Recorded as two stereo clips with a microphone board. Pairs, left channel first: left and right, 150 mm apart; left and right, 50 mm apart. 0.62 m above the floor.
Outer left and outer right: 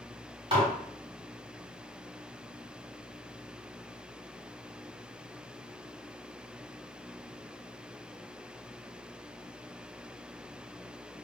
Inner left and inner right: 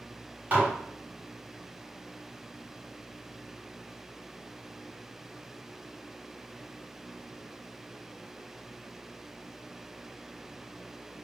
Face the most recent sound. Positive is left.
turn(degrees=-35)  # may be behind; listen again after turning